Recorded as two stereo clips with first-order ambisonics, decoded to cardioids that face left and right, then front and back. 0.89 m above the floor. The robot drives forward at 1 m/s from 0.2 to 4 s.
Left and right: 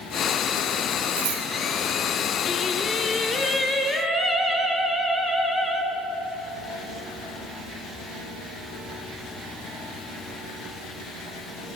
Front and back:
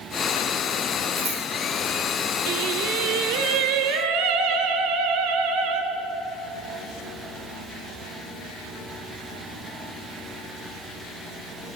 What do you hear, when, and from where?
1.2 s scissors: 115° right, 4.5 m; by 1.4 s 120° right, 4.5 m
2.5 s singing: 155° left, 1.1 m; by 5.8 s 170° left, 2.5 m